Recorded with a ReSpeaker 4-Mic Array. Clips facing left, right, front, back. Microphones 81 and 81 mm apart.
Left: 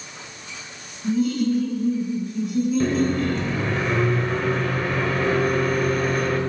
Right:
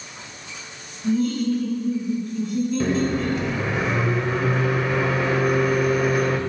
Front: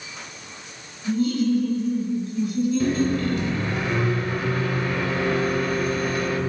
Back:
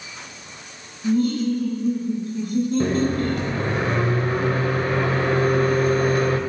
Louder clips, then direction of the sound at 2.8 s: Left 1 dB, back 1 dB; 170° right.